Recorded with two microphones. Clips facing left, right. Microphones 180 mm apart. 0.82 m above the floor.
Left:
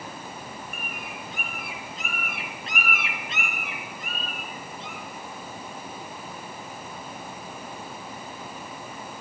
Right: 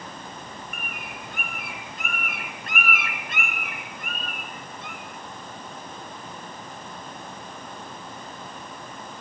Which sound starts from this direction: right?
A bird, at 0.7 s.